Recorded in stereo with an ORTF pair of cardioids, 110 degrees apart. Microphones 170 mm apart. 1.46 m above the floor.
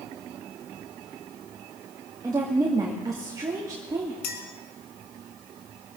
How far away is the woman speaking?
About 2 m.